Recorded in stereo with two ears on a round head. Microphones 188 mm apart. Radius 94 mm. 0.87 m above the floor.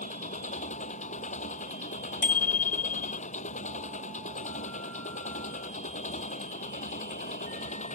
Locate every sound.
0.0 s an engine running: 35° left (ahead or behind)
2.2 s a bicycle bell: 40° left (ahead or behind)